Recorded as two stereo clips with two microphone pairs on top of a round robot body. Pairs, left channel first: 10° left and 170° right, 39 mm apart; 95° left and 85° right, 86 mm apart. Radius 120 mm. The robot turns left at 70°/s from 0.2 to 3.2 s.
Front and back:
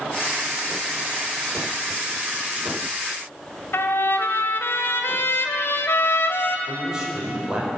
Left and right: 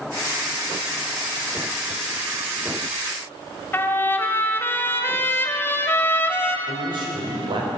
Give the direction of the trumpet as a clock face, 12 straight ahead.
11 o'clock.